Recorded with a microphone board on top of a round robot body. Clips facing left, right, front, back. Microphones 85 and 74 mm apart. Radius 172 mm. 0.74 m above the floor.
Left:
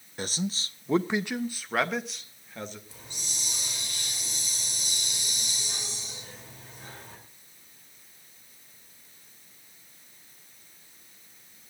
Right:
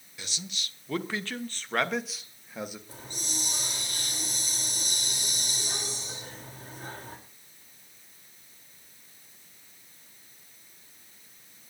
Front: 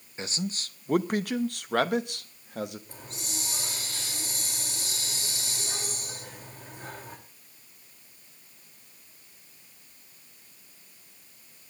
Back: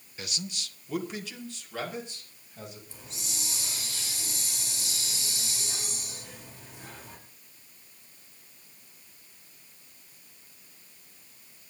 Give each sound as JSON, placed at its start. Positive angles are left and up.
{"t": 0.2, "sound": "a man speaking", "azimuth_deg": 55, "distance_m": 1.1}
{"t": 2.9, "sound": "a hiss", "azimuth_deg": -45, "distance_m": 3.5}